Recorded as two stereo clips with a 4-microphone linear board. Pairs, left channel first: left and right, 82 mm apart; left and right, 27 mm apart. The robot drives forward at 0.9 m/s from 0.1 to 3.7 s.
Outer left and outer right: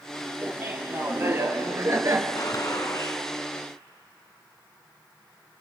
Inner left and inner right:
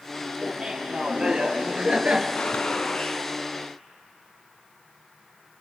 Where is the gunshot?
50° left (ahead or behind), 2 m; by 3.2 s 40° left (ahead or behind), 2.5 m.